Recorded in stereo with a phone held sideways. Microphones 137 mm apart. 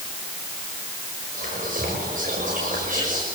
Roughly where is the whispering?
Right.